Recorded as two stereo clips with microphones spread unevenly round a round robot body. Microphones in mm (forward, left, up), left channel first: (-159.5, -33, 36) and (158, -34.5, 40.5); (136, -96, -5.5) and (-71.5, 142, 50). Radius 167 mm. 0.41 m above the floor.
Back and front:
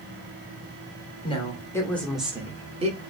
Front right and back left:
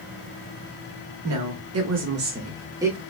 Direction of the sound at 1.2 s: 115° left.